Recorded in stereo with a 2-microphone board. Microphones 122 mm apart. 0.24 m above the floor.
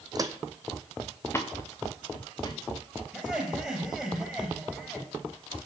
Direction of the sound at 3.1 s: 5° right (ahead or behind).